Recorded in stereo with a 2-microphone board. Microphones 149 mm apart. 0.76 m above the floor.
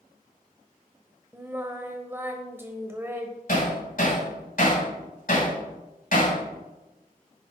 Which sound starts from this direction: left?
Hammering, at 3.5 s.